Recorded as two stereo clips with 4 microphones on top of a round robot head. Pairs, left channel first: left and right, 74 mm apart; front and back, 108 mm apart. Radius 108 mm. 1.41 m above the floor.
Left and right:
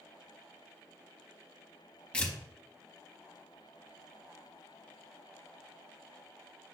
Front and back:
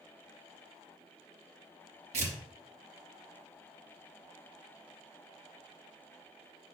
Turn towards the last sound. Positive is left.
turn(degrees=165)